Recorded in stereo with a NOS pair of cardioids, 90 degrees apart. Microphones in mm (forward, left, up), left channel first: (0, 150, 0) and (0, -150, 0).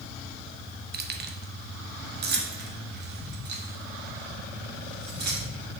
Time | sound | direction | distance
0.9 | keys jangling | 35° right | 1.0 m